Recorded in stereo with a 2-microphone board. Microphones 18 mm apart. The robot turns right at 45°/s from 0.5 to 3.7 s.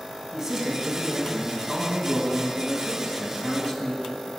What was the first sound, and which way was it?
A man speaking, 50° right.